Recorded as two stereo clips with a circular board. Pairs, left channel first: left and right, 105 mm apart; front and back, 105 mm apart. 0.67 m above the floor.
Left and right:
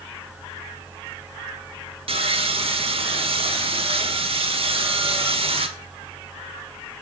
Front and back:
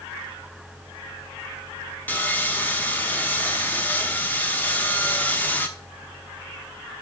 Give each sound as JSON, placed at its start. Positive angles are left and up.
{"t": 2.1, "sound": "sawing", "azimuth_deg": -70, "distance_m": 0.9}